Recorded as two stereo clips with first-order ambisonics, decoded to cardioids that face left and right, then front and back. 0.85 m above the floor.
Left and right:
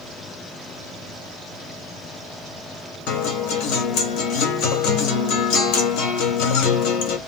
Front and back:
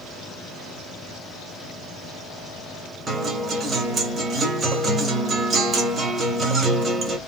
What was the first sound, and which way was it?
A guitar, 110° left.